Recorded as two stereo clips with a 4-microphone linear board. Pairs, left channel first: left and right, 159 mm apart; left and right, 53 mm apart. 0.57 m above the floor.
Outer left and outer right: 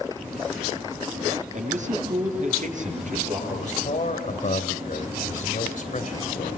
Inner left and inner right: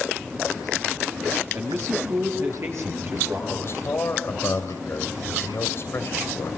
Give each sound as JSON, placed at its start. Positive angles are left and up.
{"t": 1.5, "sound": "a man speaking", "side_deg": -50, "distance_m": 8.5}
{"t": 3.5, "sound": "a man speaking", "side_deg": 55, "distance_m": 3.5}